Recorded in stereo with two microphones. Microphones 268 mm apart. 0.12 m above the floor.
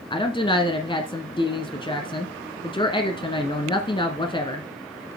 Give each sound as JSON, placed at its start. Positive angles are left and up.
{"t": 0.1, "sound": "a woman speaking", "side_deg": 20, "distance_m": 1.3}